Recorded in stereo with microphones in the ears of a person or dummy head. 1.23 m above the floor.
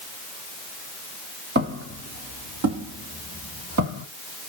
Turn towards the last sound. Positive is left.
turn(degrees=-70)  # may be behind; listen again after turning